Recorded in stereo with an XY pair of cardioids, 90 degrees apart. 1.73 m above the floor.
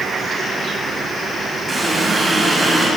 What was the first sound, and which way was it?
A running tap, 30° right.